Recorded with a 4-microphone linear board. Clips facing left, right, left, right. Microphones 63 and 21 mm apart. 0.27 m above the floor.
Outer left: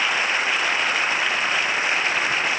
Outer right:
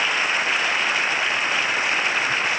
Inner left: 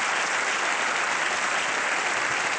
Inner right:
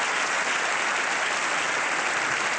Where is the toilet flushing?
I don't hear a toilet flushing.